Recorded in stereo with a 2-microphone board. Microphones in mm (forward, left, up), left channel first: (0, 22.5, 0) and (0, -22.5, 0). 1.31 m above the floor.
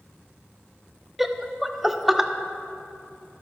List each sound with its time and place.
1.2 s laughter: 5° right (ahead or behind), 0.6 m